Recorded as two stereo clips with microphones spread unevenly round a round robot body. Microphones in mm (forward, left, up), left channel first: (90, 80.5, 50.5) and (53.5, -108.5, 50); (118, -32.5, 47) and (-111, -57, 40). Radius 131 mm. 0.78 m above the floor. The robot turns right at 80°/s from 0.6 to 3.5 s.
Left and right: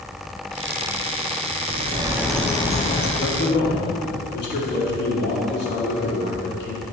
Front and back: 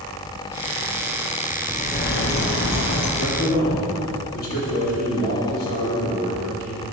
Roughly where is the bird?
Ahead right.